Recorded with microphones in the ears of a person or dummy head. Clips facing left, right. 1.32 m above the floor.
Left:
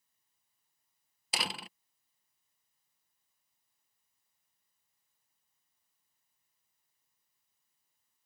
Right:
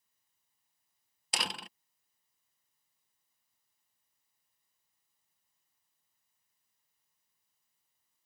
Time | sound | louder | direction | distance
1.3 | a door slam | left 1 dB | centre (ahead or behind) | ?